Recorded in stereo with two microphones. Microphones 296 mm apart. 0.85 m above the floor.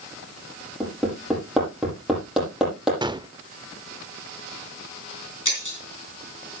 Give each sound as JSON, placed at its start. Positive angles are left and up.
{"t": 0.8, "sound": "hammering", "side_deg": 0, "distance_m": 7.0}
{"t": 3.0, "sound": "a gunshot", "side_deg": -15, "distance_m": 0.6}
{"t": 5.5, "sound": "breaking glass", "side_deg": 85, "distance_m": 4.5}